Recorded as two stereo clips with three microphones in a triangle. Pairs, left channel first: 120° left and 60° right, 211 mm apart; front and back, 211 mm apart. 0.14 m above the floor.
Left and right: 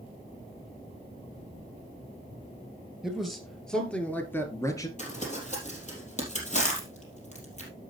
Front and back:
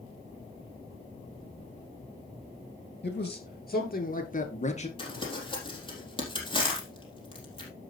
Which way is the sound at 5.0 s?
65° left.